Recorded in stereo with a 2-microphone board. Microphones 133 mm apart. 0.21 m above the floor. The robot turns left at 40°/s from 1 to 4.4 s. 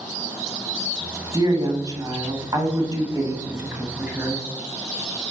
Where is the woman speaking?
50° right, 1.3 m; by 4.4 s 175° right, 1.3 m.